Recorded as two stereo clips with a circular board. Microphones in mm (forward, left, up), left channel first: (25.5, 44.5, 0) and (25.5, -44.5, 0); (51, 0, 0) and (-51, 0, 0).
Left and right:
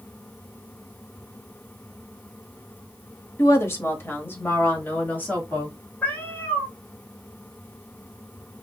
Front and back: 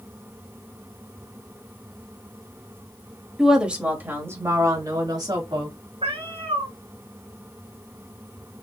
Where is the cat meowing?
160° left, 1.3 m.